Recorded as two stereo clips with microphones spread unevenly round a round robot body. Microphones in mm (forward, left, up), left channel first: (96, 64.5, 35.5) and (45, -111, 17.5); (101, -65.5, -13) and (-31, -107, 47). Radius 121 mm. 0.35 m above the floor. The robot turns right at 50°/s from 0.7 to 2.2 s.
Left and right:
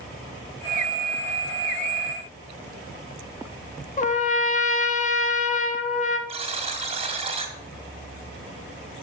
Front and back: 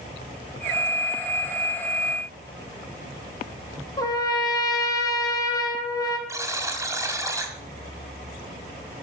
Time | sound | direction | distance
4.0 | a trumpet | 35° left | 1.2 m
6.3 | a buzzer | 75° right | 1.9 m